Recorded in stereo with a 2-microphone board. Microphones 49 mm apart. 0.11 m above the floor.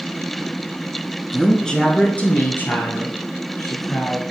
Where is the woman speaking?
Centre (ahead or behind), 1.4 m; by 4.2 s 60° left (ahead or behind), 3 m.